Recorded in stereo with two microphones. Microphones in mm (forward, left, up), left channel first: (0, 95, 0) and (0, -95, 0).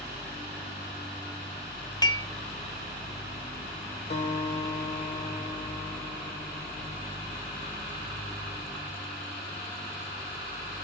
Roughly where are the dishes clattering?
Left.